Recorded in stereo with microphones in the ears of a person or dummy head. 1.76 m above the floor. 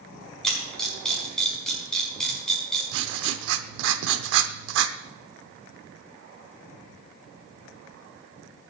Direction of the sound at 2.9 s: 75° right (ahead or behind).